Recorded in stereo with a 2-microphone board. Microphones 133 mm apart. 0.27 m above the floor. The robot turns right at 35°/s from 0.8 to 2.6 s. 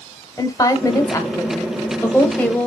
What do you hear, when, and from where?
0.4 s a woman speaking: 25° left (ahead or behind), 1.0 m; by 2.7 s 10° left (ahead or behind), 1.0 m